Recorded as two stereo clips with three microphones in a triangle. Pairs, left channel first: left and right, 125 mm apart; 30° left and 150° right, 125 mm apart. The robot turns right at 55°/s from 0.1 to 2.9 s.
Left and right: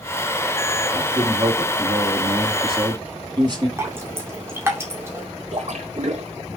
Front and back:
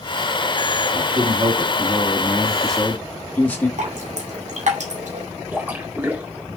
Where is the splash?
75° right, 2.0 m.